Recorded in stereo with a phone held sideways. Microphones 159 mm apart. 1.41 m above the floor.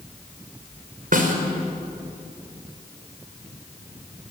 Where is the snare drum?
60° right (ahead or behind), 3.5 m.